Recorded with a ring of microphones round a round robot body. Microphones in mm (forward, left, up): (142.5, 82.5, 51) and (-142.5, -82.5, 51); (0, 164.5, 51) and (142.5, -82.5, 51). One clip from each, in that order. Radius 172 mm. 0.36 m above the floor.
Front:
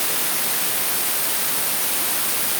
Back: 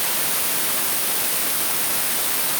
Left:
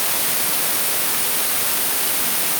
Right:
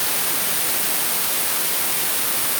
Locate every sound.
Only background noise.